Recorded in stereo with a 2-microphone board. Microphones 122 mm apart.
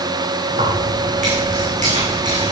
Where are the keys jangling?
80° right, 7.5 m.